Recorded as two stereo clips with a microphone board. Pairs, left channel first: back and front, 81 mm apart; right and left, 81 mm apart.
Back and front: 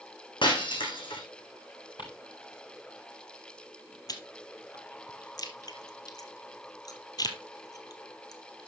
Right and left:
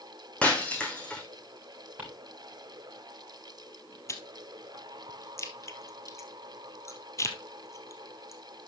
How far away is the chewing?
About 1.5 m.